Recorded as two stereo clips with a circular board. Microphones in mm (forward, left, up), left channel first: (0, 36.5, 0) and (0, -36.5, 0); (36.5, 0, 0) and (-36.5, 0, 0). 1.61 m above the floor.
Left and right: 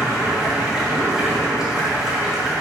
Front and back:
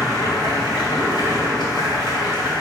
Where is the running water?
5° right, 2.5 m.